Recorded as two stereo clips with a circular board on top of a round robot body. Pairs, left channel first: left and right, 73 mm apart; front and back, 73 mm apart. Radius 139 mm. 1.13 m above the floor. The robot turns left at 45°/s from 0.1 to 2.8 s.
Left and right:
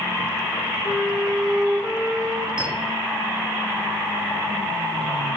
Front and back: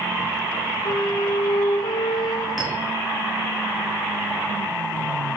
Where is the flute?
25° left, 0.8 m; by 2.5 s 45° right, 0.8 m.